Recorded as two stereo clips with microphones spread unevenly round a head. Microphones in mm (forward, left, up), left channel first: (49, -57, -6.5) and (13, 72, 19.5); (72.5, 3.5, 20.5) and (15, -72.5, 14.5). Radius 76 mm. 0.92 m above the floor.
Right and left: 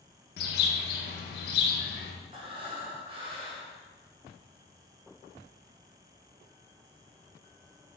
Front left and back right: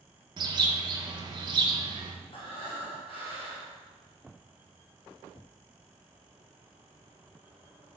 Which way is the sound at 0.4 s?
90° right.